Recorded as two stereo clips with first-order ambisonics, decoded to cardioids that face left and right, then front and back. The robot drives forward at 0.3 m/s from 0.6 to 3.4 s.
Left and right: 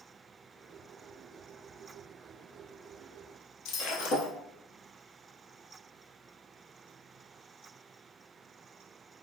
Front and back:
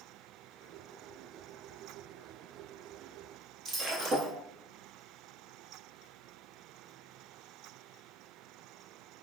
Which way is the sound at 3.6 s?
125° left.